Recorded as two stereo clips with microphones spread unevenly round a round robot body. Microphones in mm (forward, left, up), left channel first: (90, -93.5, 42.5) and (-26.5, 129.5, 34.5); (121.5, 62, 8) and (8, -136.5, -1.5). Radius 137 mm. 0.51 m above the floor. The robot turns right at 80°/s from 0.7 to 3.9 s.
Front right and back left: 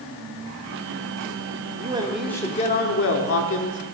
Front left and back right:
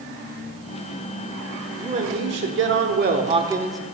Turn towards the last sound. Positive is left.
turn(degrees=-20)